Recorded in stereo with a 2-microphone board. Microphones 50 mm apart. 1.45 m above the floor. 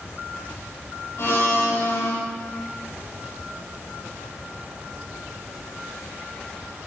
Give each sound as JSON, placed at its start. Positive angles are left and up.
{"t": 1.2, "sound": "a blender", "side_deg": 60, "distance_m": 9.5}